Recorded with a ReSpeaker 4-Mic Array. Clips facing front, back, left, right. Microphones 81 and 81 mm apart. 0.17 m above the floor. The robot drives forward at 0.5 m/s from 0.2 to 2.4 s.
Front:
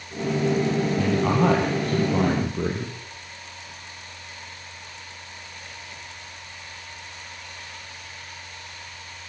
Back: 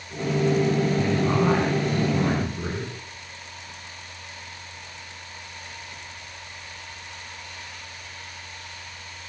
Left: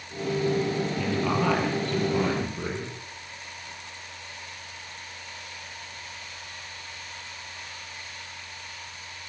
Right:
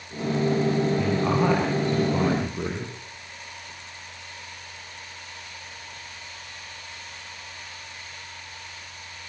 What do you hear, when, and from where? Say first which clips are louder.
1.0 s a man speaking: front 1 dB, right 3 dB; 15° right, 5.5 m; by 2.9 s 20° right, 5 m